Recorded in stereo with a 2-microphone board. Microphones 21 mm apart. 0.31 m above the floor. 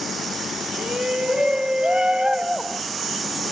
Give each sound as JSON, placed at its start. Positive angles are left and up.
{"t": 0.8, "sound": "a shout", "side_deg": -45}